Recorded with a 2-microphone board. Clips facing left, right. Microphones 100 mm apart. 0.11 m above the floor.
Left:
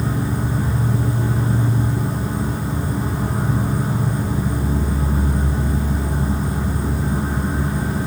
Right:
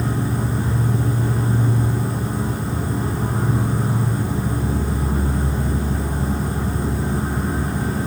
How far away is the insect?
About 0.8 m.